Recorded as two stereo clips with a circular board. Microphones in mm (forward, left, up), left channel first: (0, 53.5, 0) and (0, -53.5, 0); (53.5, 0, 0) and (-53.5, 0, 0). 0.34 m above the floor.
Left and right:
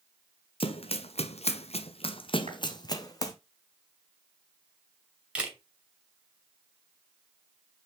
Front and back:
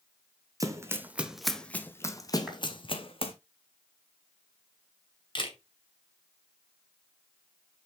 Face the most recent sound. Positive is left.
turn(degrees=-15)